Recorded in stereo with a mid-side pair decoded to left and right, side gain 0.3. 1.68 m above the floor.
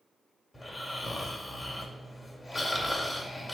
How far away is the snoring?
About 2 m.